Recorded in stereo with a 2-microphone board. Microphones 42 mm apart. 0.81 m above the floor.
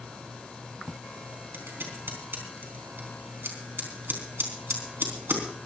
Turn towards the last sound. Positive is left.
turn(degrees=-65)  # may be behind; listen again after turning